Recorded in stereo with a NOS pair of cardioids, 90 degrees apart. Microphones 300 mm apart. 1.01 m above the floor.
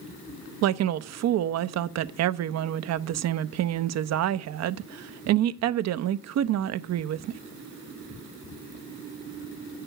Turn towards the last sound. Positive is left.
turn(degrees=-60)